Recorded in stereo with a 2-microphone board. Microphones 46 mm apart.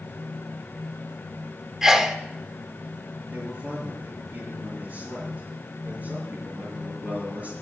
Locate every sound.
1.8 s a sneeze: 10° right (ahead or behind), 0.7 m
3.3 s a man speaking: 35° right (ahead or behind), 7.5 m